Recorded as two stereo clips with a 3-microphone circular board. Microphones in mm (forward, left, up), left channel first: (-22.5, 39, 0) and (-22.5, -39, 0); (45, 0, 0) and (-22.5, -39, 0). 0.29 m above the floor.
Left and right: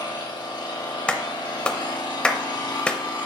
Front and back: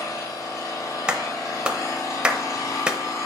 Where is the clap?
150° left, 0.7 m.